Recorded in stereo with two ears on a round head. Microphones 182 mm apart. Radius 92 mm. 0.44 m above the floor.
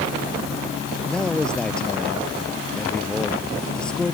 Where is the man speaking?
5° left (ahead or behind).